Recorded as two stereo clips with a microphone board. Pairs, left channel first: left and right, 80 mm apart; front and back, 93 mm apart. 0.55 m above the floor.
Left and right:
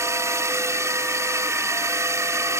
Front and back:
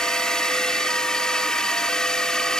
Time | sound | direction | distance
0.0 | a drone | 80° right | ?